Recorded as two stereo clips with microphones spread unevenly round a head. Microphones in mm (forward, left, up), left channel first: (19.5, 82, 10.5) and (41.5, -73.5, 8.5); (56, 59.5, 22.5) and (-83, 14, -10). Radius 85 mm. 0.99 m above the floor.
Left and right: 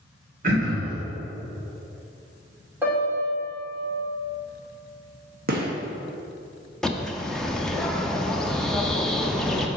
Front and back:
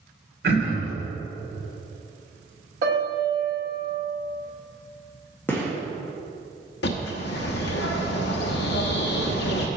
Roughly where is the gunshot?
Right.